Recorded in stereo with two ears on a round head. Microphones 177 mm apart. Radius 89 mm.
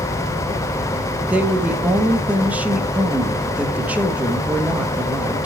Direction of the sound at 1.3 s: 5° right (ahead or behind).